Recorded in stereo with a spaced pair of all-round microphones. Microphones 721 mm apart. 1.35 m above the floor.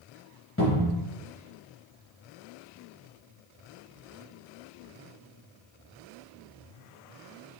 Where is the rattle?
I don't hear a rattle.